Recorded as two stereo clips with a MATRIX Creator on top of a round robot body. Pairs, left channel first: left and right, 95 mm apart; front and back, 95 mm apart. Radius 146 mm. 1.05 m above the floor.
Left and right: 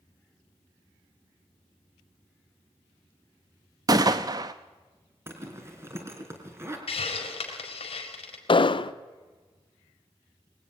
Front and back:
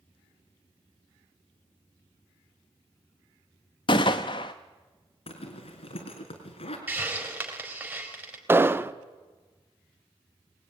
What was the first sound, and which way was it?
A gunshot, 45° right.